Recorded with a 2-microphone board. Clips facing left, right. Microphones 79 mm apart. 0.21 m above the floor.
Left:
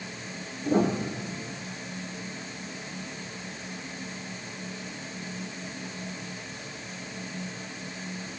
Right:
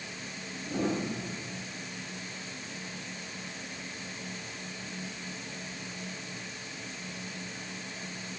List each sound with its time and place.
0.7 s a piano: 45° left (ahead or behind), 7 m